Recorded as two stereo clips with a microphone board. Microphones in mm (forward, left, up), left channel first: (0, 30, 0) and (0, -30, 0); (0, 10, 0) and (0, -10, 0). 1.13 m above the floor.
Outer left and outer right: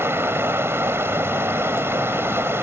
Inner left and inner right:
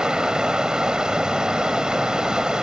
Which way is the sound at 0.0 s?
45° right (ahead or behind).